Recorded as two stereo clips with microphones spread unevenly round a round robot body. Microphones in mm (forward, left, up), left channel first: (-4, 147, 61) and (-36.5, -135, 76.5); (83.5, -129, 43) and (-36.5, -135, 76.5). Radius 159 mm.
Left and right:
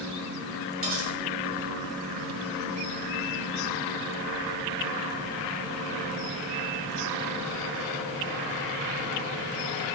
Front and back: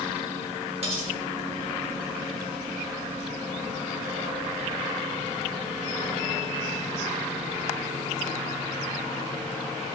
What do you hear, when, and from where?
0.8 s cutlery clinking: 140° right, 1.3 m